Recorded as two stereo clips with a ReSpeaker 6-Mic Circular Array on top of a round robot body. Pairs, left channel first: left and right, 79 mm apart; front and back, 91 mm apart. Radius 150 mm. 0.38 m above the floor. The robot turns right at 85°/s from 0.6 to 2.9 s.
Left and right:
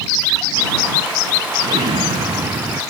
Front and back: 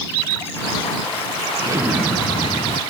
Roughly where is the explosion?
Behind right.